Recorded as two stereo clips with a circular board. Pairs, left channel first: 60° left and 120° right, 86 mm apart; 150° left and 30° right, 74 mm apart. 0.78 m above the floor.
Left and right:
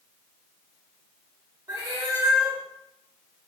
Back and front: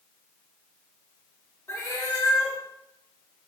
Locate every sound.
1.7 s a cat meowing: 160° right, 0.8 m